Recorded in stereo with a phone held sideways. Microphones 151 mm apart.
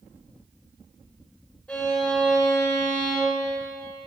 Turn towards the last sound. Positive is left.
turn(degrees=5)  # may be behind; listen again after turning